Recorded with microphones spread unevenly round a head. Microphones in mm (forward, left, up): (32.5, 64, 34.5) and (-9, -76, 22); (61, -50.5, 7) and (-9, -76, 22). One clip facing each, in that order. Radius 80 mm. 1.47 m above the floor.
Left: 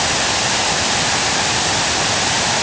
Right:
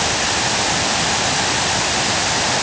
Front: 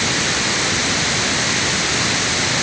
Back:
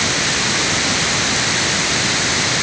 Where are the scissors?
No scissors in this recording.